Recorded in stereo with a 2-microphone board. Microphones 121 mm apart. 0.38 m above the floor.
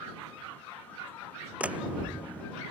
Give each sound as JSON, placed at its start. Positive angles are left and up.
{"t": 1.6, "sound": "a door slam", "side_deg": -10}